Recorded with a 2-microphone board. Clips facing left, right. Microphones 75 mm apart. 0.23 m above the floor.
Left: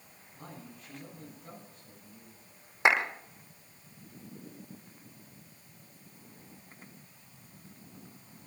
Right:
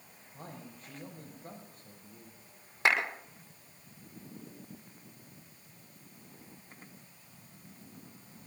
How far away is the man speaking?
About 7 m.